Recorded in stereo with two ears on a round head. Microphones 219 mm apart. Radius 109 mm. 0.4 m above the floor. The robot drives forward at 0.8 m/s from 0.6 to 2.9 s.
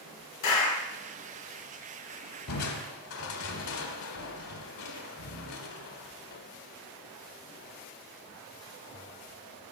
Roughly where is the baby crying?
No baby crying in this recording.